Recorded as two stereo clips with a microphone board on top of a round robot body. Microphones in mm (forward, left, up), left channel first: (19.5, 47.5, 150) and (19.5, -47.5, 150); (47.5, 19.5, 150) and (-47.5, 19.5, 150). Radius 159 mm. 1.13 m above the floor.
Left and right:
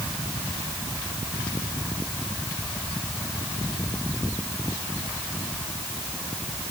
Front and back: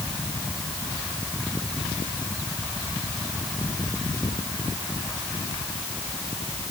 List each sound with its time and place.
Only background noise.